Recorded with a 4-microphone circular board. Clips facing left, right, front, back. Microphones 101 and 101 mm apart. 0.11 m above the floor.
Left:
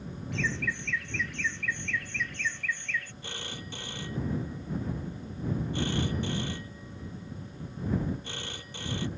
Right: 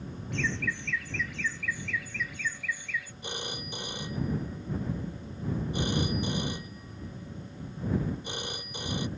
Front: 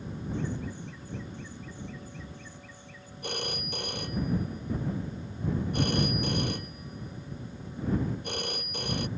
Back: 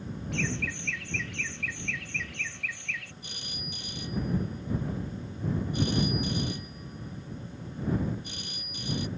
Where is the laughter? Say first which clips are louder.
Even, back 1 dB; straight behind; by 3.1 s 170° right.